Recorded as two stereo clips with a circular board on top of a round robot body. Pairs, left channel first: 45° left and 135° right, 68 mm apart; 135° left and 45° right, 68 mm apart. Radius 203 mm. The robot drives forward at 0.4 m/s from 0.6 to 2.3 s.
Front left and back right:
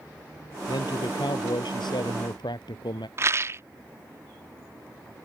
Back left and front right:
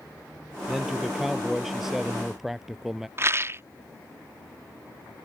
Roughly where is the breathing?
No breathing in this recording.